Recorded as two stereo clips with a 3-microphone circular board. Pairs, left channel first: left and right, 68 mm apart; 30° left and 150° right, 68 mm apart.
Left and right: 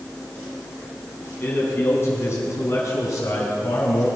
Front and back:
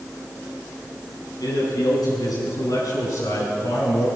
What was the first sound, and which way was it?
A man speaking, 35° left.